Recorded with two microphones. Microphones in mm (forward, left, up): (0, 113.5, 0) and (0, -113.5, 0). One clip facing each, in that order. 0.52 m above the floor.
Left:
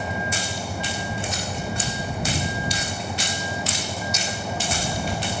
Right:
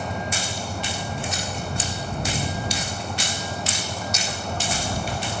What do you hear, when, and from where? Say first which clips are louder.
0.0 s a vehicle: left 1 dB; 5° left (ahead or behind)